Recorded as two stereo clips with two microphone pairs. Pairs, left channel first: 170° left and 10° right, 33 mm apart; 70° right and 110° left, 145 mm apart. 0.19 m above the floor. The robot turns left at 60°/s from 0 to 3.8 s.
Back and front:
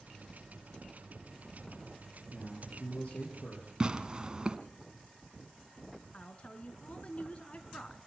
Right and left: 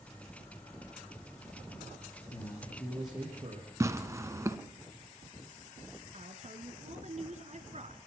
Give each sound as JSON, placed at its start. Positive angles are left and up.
{"t": 2.3, "sound": "a man speaking", "azimuth_deg": -120, "distance_m": 5.0}
{"t": 3.8, "sound": "tearing paper", "azimuth_deg": 50, "distance_m": 1.3}
{"t": 6.1, "sound": "a woman speaking", "azimuth_deg": 130, "distance_m": 2.0}